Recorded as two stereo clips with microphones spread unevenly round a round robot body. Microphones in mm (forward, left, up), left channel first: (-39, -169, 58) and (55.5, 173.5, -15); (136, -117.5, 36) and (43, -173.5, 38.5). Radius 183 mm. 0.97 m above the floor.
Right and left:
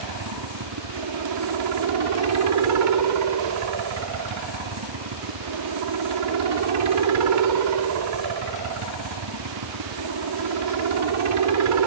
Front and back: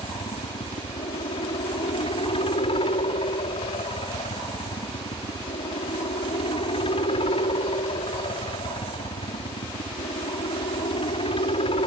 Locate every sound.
0.0 s a helicopter: 65° left